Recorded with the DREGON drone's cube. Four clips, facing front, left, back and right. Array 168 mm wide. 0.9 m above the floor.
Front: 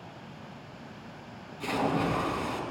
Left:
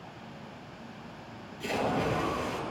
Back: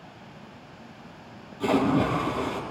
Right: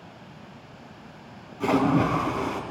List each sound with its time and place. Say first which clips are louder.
1.6 s a splash: right 8 dB, back 6 dB; 115° right, 4.5 m